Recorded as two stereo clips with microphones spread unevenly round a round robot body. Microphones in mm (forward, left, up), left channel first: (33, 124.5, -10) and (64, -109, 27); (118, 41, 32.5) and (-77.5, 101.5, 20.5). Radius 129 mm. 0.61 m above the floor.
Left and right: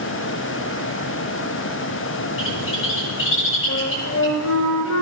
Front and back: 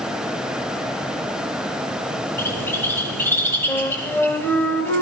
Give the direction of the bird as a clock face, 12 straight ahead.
10 o'clock.